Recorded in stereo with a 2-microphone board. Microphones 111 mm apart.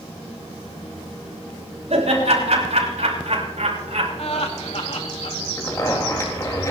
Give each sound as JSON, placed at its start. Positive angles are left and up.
{"t": 1.9, "sound": "laughter", "side_deg": -80, "distance_m": 5.5}
{"t": 4.2, "sound": "laughter", "side_deg": 60, "distance_m": 1.4}
{"t": 5.6, "sound": "a zipper", "side_deg": 30, "distance_m": 4.0}